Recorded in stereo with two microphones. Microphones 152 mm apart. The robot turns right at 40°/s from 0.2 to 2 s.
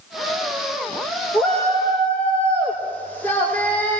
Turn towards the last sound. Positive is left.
turn(degrees=10)  # may be behind; listen again after turning